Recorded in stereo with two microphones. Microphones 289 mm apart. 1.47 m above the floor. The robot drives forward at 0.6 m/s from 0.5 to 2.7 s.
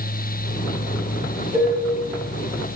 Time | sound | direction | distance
1.5 | dishes clattering | 5° right (ahead or behind) | 1.0 m